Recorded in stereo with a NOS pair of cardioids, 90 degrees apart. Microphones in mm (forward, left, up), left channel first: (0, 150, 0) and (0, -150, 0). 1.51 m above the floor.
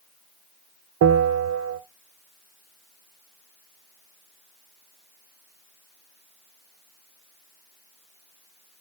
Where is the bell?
60° right, 1.1 m.